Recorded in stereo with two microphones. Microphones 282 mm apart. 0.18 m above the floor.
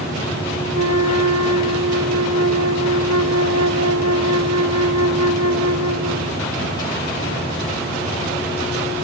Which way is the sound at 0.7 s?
70° right (ahead or behind).